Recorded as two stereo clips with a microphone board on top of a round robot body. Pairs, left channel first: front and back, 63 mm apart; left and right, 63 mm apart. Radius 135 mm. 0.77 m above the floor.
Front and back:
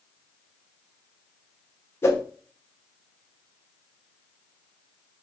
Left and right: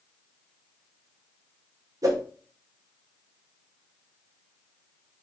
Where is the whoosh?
55° right, 1.0 m.